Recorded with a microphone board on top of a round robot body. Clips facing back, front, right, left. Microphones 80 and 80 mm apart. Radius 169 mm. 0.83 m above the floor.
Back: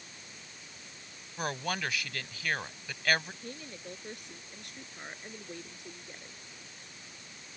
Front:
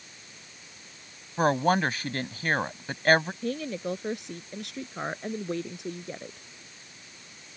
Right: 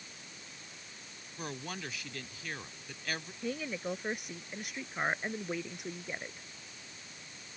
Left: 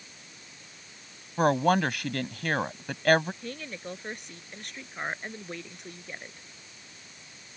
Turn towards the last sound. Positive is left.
turn(degrees=-5)